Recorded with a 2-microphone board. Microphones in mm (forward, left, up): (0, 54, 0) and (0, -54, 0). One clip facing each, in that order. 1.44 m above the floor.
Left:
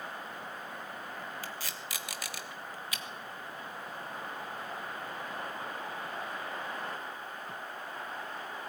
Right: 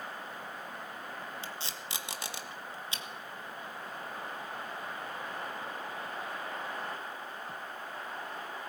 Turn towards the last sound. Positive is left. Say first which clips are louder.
# even
turn(degrees=-25)  # may be behind; listen again after turning